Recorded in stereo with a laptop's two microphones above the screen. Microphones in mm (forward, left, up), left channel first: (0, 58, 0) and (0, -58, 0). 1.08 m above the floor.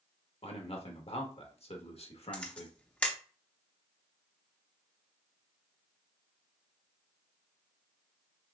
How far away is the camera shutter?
About 0.7 m.